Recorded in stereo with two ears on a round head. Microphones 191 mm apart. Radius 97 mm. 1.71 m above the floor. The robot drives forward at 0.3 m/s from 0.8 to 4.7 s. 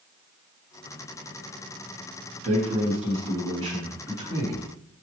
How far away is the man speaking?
About 1.1 m.